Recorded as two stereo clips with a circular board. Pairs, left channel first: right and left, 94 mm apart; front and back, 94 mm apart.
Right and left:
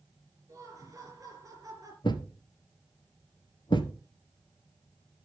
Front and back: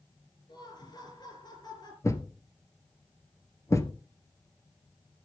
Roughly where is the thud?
Ahead right.